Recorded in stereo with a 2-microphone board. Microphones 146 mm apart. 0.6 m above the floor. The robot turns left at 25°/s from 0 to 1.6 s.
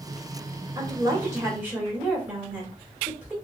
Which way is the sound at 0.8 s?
15° right (ahead or behind).